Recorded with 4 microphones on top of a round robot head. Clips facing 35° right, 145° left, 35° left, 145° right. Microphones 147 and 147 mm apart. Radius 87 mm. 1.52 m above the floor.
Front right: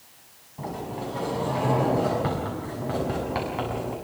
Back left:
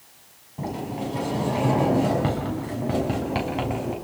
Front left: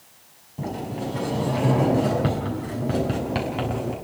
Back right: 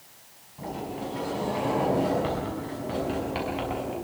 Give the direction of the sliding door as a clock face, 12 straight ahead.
9 o'clock.